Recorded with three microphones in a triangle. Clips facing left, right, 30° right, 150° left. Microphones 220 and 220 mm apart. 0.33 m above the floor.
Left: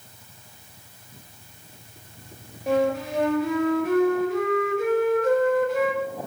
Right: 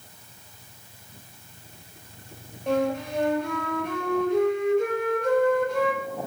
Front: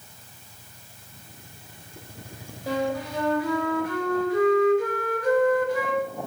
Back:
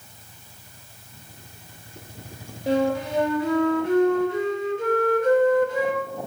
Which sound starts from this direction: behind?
A flute, at 2.7 s.